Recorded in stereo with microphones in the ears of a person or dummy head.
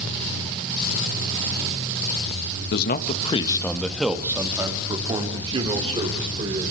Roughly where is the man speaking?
Left.